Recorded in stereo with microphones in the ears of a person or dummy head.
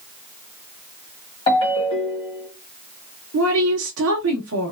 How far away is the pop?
I don't hear a pop.